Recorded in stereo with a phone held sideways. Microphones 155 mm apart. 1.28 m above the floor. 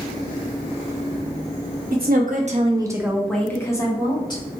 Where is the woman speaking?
75° right (ahead or behind), 0.7 m; by 4.4 s 30° left (ahead or behind), 1.2 m.